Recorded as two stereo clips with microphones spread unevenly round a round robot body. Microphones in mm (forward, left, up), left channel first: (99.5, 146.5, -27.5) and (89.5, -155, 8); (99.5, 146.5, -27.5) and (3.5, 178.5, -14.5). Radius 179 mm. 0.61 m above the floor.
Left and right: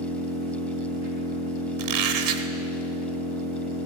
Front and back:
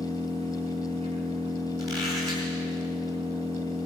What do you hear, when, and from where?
0.0 s an engine running: 165° left, 3 m
1.8 s a squeak: 125° right, 0.8 m